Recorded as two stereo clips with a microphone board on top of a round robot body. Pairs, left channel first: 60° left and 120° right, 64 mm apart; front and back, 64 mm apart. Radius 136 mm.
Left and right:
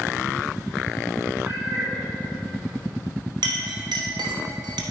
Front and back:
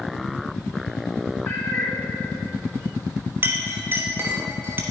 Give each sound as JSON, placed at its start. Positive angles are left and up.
{"t": 1.4, "sound": "a cat meowing", "azimuth_deg": -55, "distance_m": 1.7}
{"t": 3.4, "sound": "a clink", "azimuth_deg": -120, "distance_m": 1.0}